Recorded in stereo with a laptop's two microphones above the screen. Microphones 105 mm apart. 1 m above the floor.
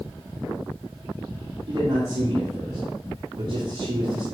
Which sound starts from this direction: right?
A man speaking, at 1.7 s.